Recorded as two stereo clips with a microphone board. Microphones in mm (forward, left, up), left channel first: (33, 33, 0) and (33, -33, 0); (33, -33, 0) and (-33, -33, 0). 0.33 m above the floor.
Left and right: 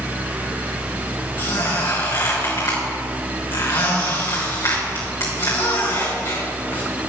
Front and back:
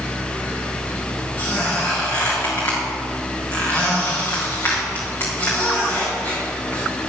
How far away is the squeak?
About 5 m.